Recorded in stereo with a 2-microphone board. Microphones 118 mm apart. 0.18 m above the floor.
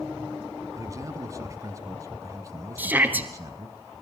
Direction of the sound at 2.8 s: 15° right (ahead or behind).